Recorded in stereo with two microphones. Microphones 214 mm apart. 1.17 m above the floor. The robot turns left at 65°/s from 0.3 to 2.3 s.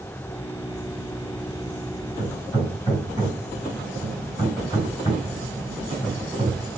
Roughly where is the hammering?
Left.